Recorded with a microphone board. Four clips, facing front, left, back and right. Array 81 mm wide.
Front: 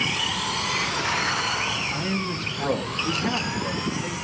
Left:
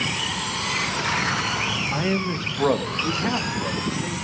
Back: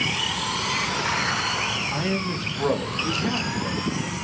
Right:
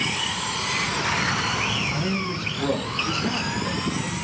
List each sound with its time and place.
1.9 s a man speaking: 115° left, 1.5 m; by 4.1 s 80° left, 3 m